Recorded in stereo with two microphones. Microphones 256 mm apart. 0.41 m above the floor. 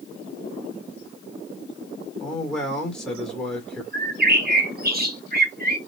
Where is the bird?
35° right (ahead or behind), 0.6 m.